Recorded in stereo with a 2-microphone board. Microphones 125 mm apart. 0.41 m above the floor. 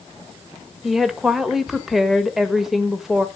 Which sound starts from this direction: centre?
A woman speaking, at 0.8 s.